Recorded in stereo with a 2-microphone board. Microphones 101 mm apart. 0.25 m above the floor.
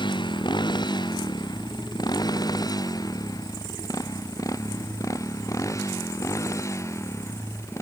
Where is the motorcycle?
50° left (ahead or behind); by 7.8 s 30° left (ahead or behind).